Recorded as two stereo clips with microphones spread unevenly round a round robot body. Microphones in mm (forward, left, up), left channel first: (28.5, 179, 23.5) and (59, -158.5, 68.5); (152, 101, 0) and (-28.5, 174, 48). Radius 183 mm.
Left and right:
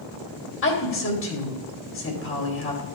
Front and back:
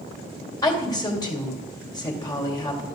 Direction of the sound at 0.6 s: 45° left.